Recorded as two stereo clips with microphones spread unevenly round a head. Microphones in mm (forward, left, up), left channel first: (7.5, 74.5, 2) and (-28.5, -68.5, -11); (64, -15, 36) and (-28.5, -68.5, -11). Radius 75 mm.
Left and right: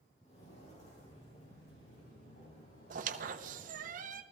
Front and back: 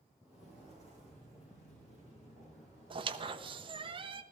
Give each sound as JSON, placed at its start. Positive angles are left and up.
{"t": 0.2, "sound": "footsteps", "azimuth_deg": 120, "distance_m": 5.0}
{"t": 2.9, "sound": "a squeak", "azimuth_deg": -95, "distance_m": 0.8}